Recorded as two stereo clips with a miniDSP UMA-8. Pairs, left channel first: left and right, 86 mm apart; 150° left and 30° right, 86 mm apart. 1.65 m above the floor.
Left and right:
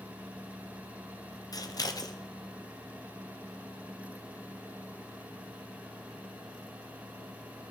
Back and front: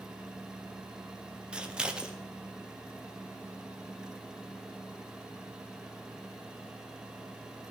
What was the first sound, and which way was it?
Scissors, 50° left.